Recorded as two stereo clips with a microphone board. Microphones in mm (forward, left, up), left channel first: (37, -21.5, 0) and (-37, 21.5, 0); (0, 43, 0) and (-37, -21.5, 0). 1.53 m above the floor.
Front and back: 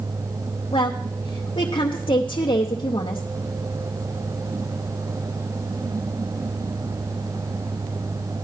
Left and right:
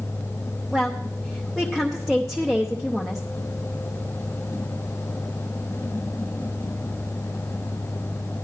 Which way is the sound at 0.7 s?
25° right.